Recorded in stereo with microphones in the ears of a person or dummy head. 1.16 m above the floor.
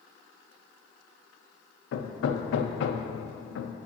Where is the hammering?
75° left (ahead or behind), 0.6 m.